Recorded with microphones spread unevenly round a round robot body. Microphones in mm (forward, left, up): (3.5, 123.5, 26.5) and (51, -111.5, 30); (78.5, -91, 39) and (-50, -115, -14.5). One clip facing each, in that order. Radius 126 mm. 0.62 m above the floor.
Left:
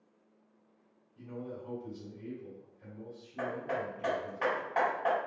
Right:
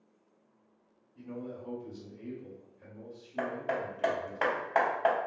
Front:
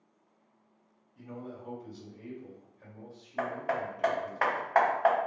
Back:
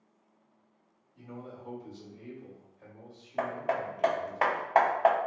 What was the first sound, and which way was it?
A man speaking, 100° right.